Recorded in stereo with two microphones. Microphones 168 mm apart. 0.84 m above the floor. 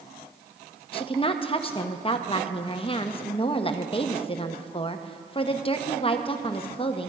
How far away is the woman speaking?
About 0.7 m.